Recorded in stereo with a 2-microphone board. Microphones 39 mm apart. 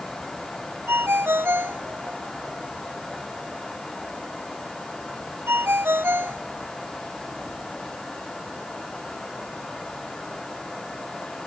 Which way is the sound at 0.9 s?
75° right (ahead or behind).